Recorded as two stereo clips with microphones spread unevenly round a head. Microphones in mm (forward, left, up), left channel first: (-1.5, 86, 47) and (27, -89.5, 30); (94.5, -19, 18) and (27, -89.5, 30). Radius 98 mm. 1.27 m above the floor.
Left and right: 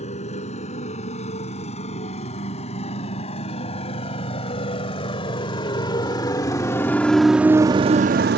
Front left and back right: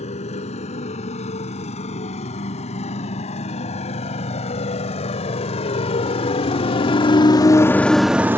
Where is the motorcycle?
45° left; by 8.4 s 90° right.